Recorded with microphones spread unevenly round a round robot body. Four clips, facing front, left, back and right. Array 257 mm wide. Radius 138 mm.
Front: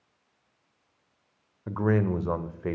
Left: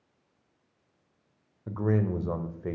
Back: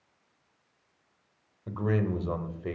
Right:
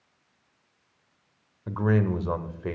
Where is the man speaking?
20° right, 0.9 m.